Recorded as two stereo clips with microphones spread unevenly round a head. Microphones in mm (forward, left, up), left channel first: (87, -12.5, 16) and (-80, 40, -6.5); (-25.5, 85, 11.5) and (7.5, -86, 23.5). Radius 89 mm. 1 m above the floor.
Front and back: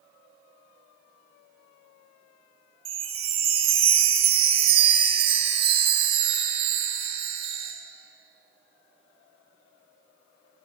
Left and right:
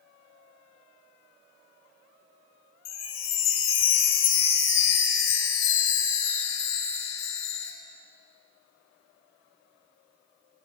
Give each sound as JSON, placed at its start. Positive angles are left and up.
{"t": 2.9, "sound": "a chime", "azimuth_deg": 105, "distance_m": 4.0}